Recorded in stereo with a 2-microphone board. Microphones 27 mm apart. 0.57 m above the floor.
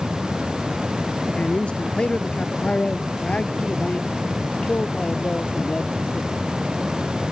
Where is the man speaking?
45° left (ahead or behind); by 6.3 s 50° left (ahead or behind).